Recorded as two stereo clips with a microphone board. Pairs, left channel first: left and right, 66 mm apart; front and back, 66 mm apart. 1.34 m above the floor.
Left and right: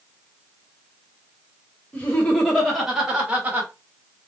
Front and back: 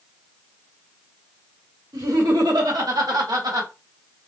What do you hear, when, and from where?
1.9 s laughter: 160° left, 1.3 m; by 3.7 s 155° right, 1.3 m